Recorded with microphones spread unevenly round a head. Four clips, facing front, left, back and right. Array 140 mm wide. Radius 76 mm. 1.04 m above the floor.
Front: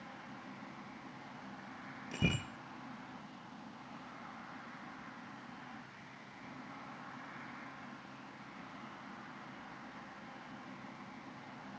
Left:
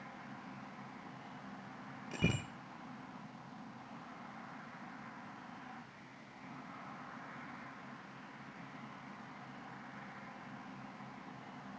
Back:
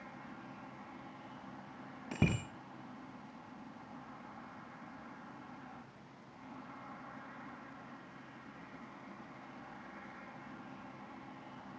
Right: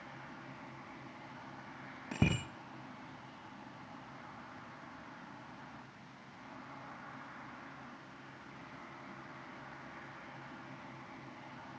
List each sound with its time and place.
2.1 s a bicycle bell: 135° right, 7 m